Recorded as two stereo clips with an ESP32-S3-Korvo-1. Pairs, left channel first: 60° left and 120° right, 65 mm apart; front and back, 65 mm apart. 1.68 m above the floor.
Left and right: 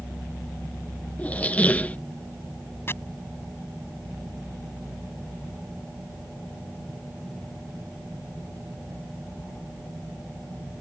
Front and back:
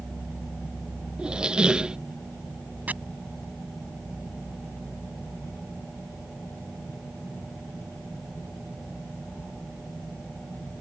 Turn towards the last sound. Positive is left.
turn(degrees=115)